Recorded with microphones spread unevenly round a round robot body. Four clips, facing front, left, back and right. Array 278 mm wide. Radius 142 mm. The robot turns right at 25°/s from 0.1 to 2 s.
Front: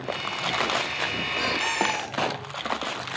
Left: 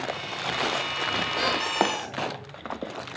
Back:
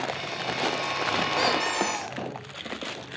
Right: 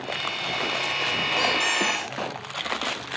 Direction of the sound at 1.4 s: 150° right.